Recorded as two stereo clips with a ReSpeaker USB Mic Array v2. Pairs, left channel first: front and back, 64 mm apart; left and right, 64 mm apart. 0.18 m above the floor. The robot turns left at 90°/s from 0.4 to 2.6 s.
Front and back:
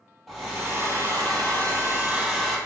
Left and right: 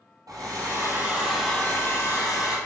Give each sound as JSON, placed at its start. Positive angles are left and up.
{"t": 0.3, "sound": "a hair dryer", "azimuth_deg": -95, "distance_m": 2.5}